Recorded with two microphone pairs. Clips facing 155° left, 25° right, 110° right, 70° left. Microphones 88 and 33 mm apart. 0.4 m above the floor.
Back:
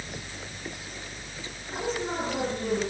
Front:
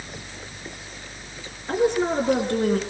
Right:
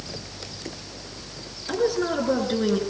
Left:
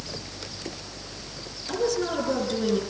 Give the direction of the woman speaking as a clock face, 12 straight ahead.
2 o'clock.